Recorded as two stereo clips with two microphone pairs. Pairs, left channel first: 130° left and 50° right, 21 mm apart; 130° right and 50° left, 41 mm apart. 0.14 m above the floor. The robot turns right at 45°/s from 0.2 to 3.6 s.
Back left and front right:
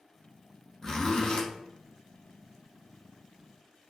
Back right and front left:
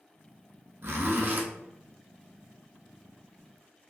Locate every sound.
0.8 s a zipper: 60° left, 0.9 m; by 1.4 s 90° left, 0.9 m